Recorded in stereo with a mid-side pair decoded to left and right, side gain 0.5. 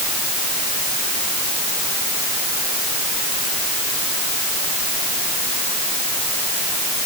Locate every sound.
Only background noise.